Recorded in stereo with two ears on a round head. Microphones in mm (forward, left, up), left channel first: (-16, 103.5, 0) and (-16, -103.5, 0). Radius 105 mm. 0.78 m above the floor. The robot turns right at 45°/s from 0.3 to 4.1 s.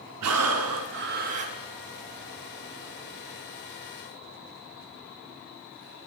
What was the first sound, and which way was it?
Breathing, 80° right.